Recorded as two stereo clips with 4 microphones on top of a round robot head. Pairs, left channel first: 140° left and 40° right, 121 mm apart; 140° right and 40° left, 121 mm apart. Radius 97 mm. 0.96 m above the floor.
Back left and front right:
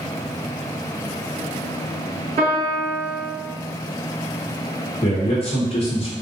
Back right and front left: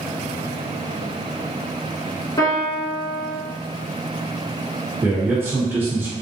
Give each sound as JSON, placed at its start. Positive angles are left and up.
{"t": 2.4, "sound": "a piano", "azimuth_deg": -80, "distance_m": 1.3}
{"t": 5.0, "sound": "a man speaking", "azimuth_deg": 115, "distance_m": 1.1}